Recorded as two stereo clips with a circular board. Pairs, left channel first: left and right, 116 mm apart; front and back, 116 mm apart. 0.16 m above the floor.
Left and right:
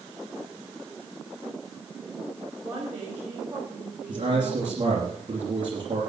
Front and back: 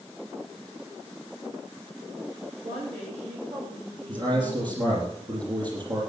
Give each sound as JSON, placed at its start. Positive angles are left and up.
{"t": 2.6, "sound": "a woman speaking", "azimuth_deg": -165, "distance_m": 9.0}
{"t": 4.1, "sound": "a man speaking", "azimuth_deg": -135, "distance_m": 4.5}